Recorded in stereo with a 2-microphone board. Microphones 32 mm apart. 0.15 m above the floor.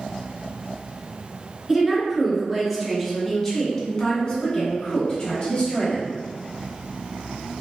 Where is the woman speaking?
10° right (ahead or behind), 1.6 m; by 6.1 s 35° left (ahead or behind), 1.6 m.